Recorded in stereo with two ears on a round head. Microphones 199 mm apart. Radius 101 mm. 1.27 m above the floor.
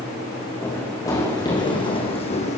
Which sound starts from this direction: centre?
Running footsteps, at 0.6 s.